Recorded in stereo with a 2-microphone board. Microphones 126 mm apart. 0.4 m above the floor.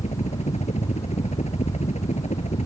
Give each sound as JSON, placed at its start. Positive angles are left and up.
{"t": 0.0, "sound": "a helicopter", "side_deg": 60}